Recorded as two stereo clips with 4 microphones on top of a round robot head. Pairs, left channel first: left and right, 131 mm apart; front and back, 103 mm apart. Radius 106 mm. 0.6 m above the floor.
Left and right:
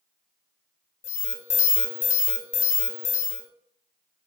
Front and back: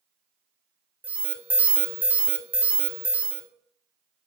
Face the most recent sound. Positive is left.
turn(degrees=105)